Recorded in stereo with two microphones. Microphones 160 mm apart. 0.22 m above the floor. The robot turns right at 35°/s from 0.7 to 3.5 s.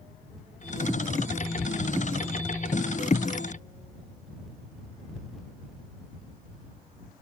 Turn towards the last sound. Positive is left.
No sound to turn to.